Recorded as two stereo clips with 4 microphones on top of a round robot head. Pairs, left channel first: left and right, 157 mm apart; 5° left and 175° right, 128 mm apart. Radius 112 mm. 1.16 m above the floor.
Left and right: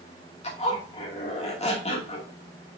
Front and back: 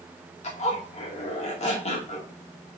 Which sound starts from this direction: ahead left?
A zipper, at 0.4 s.